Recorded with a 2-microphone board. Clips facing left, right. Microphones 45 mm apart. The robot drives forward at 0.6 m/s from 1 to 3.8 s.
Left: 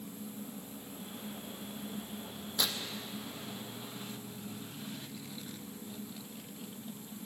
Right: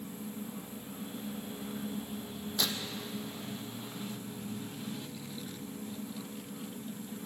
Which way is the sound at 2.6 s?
5° left (ahead or behind).